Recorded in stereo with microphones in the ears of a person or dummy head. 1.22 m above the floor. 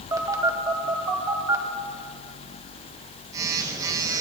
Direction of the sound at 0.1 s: 20° right (ahead or behind).